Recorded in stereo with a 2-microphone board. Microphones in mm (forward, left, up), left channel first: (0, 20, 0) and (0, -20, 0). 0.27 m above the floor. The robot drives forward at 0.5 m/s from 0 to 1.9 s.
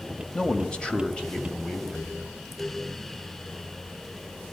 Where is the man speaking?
20° left (ahead or behind), 1.7 m.